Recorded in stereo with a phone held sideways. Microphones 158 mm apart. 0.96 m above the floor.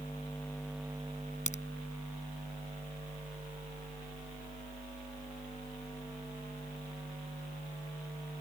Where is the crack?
50° left (ahead or behind).